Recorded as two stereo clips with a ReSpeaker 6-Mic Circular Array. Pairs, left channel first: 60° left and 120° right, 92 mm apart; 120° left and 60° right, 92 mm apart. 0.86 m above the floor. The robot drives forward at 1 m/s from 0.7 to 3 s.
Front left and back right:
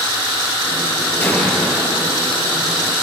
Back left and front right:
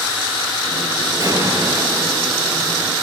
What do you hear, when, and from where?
1.2 s an explosion: 10° right, 4.5 m; by 2.1 s 15° right, 3.5 m